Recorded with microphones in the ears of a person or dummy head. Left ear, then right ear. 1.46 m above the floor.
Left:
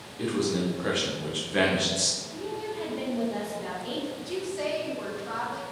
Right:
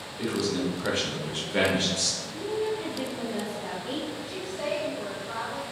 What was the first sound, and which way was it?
A man speaking, centre (ahead or behind).